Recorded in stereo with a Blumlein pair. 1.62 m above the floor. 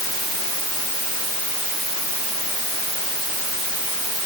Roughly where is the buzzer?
I don't hear a buzzer.